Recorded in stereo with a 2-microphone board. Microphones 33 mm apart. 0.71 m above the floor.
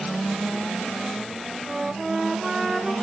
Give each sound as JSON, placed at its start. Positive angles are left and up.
{"t": 1.7, "sound": "a flute", "side_deg": -15, "distance_m": 1.1}